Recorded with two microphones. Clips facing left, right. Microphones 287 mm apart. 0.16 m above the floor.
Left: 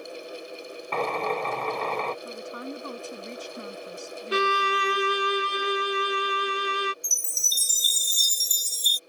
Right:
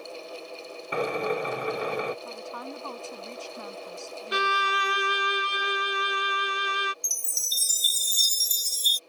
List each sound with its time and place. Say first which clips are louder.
0.9 s a drill: right 1 dB; 15° right (ahead or behind)
2.2 s a woman speaking: left 3 dB; 20° left (ahead or behind)
4.3 s a violin: left 6 dB; 35° left (ahead or behind)
7.0 s a chime: left 1 dB; 15° right (ahead or behind)